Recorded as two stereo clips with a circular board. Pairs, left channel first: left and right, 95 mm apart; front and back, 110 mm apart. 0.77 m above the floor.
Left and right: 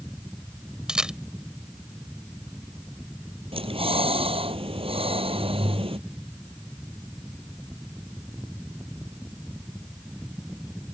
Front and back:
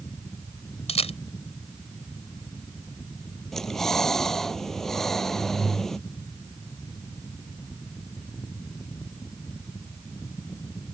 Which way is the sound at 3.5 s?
85° right.